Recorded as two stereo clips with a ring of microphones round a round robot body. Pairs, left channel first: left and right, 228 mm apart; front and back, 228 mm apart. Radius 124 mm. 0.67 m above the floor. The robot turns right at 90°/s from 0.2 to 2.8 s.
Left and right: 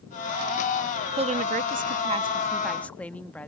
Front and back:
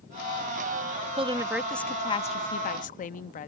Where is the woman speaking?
135° right; by 3.5 s 10° left.